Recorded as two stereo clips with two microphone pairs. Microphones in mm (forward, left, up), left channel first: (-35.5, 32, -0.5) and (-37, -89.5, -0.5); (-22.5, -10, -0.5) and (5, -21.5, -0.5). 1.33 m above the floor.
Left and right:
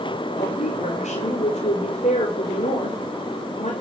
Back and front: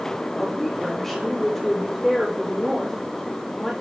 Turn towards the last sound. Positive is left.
turn(degrees=75)